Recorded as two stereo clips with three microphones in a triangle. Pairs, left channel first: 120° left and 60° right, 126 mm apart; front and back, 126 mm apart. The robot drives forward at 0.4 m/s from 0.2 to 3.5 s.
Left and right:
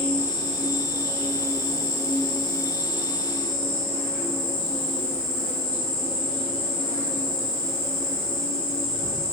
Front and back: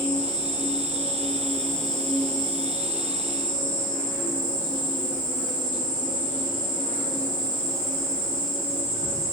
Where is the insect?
55° right, 1.4 m; by 9.3 s 120° right, 1.4 m.